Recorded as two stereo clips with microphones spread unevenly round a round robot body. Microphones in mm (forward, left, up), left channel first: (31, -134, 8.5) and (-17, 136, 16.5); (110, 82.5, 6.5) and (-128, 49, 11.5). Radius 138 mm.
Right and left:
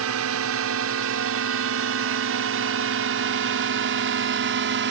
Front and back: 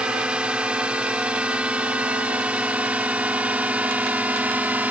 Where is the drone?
105° left; by 4.9 s 110° left.